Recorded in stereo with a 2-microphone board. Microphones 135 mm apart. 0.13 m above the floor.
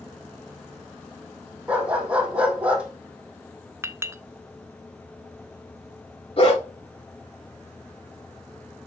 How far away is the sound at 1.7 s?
About 3 m.